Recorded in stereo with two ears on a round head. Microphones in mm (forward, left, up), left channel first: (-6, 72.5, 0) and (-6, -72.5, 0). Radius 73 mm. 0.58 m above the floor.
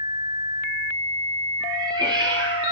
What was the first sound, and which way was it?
A cat meowing, 25° right (ahead or behind).